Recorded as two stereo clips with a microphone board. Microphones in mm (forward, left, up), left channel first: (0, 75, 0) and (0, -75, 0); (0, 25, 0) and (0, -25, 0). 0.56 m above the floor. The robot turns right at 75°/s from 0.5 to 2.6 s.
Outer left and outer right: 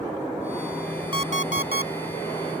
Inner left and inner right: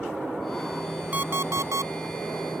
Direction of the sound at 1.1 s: 145° right.